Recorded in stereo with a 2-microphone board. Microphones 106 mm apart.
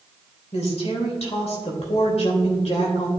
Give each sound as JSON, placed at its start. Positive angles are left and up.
{"t": 0.5, "sound": "a woman speaking", "side_deg": 75, "distance_m": 3.0}